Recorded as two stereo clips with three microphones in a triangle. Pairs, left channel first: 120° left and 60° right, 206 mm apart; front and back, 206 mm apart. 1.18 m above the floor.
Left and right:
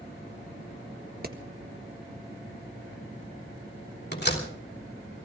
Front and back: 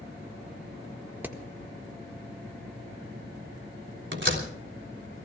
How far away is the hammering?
About 1.5 m.